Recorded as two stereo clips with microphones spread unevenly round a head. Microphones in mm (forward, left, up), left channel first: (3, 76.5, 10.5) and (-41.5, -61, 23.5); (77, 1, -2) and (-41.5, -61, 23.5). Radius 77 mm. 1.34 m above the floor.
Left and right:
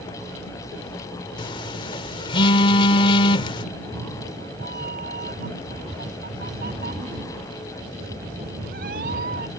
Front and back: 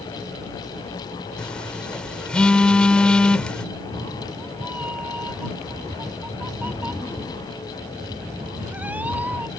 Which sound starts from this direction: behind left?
A phone buzzing, at 1.4 s.